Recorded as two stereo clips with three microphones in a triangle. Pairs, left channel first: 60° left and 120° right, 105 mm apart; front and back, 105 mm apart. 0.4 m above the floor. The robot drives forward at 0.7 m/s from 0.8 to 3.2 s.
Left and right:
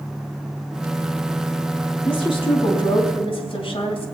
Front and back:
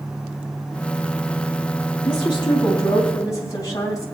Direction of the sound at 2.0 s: 40° left.